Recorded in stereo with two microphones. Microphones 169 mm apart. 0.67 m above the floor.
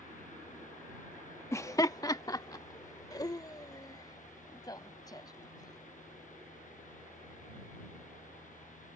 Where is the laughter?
15° left (ahead or behind); by 5.8 s 25° left (ahead or behind).